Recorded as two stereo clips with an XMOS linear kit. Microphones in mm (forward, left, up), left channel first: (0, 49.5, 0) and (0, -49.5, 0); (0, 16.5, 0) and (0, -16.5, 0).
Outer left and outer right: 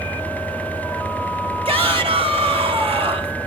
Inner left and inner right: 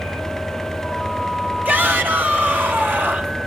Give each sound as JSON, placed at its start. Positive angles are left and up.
{"t": 1.6, "sound": "a shout", "side_deg": -70, "distance_m": 3.5}